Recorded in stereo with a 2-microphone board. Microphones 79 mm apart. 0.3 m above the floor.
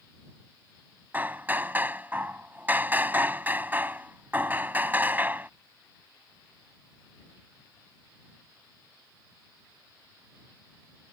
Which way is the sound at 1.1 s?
25° right (ahead or behind).